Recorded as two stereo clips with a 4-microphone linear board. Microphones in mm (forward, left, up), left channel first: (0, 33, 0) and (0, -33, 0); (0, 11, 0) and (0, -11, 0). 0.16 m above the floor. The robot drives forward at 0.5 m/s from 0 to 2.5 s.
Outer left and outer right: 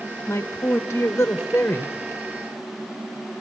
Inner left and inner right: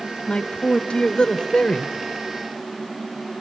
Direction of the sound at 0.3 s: 30° left (ahead or behind).